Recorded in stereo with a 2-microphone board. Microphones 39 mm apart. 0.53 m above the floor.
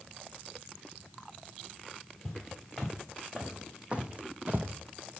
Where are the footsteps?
5° right (ahead or behind), 1.6 m; by 4.7 s 50° right (ahead or behind), 0.8 m.